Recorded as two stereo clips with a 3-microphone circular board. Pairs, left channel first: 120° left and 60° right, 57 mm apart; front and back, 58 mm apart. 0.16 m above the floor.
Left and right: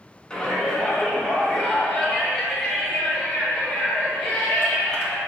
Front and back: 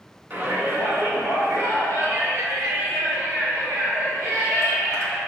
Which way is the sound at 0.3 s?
Straight behind.